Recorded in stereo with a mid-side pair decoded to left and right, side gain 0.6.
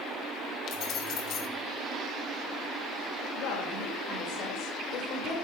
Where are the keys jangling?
60° left, 2 m.